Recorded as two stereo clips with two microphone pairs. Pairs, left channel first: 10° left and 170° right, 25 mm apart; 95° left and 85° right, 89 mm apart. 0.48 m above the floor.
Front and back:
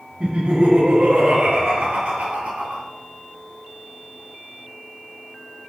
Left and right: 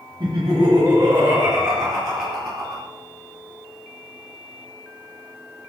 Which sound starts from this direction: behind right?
Laughter, at 0.2 s.